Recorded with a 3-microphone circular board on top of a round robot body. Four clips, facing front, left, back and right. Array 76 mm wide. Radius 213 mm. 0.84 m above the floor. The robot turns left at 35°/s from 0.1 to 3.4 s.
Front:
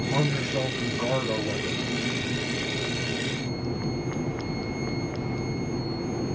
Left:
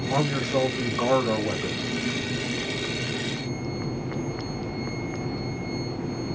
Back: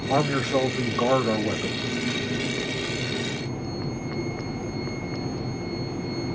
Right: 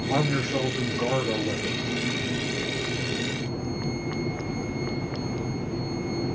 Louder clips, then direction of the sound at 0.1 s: Left 1 dB, back 6 dB; 165° right.